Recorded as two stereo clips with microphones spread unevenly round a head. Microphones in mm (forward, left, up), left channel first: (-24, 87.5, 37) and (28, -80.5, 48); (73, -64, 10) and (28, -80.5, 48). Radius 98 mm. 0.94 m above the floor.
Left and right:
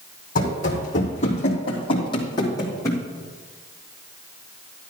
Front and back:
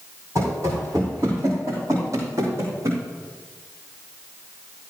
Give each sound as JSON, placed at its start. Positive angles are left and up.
{"t": 0.3, "sound": "running footsteps", "azimuth_deg": 155, "distance_m": 3.5}